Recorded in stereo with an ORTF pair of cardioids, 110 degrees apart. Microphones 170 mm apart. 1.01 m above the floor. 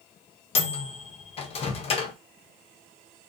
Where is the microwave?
40° left, 0.5 m.